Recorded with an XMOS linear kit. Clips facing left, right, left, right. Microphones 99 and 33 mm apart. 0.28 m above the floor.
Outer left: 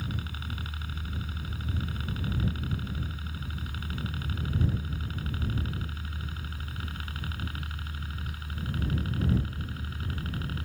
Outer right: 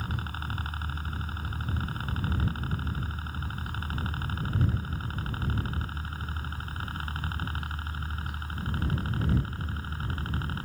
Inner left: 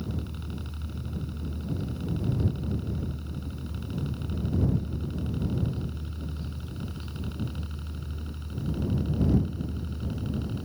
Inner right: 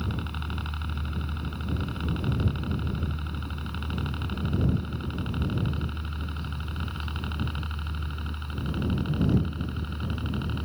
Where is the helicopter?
45° right (ahead or behind); by 10.7 s 40° right (ahead or behind).